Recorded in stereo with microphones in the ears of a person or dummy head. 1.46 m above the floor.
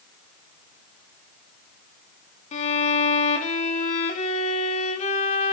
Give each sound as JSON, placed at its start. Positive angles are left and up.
{"t": 2.5, "sound": "a violin", "side_deg": 45, "distance_m": 1.3}